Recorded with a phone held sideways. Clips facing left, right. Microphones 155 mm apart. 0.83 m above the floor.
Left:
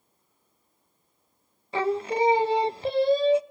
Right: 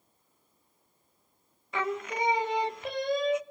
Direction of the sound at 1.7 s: 30° left (ahead or behind).